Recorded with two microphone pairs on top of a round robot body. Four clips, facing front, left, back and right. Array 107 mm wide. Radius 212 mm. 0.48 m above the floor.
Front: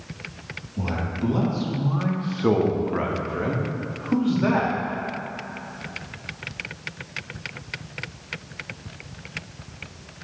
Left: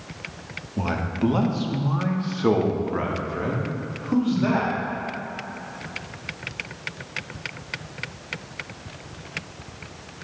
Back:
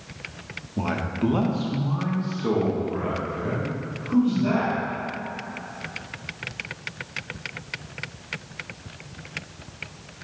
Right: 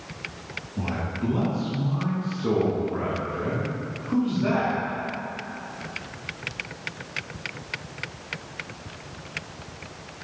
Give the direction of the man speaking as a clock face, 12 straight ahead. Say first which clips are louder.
Left 5 dB, back 2 dB; 8 o'clock.